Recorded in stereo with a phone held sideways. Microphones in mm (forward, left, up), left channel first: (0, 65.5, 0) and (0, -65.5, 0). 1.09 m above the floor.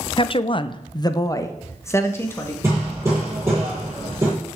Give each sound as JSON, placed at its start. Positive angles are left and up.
{"t": 0.2, "sound": "a woman speaking", "side_deg": 40, "distance_m": 0.6}
{"t": 2.6, "sound": "hammering", "side_deg": -20, "distance_m": 7.0}